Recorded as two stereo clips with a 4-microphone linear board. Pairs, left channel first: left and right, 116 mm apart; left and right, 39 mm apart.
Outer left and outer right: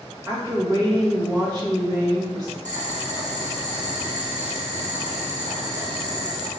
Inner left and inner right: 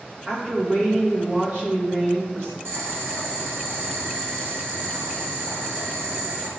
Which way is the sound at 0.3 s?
35° right (ahead or behind).